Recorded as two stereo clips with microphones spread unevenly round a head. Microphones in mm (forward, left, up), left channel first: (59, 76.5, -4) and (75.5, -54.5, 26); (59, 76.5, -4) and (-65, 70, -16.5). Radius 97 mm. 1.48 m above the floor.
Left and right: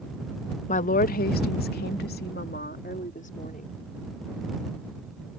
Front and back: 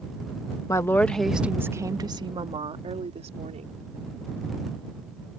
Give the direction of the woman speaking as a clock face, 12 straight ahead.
10 o'clock.